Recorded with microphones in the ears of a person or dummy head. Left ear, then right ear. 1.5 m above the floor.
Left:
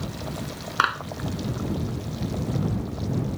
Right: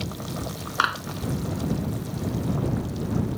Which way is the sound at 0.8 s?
10° left (ahead or behind).